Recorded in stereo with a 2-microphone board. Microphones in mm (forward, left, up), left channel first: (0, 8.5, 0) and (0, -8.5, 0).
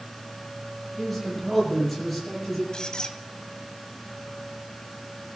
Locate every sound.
1.0 s a man speaking: 10° left (ahead or behind), 8.5 m; by 2.6 s 5° left (ahead or behind), 10 m
2.7 s a squeak: 45° left (ahead or behind), 1.6 m